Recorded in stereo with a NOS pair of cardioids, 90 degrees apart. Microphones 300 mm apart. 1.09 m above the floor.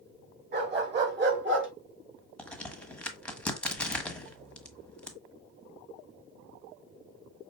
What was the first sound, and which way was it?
A dog barking, 35° right.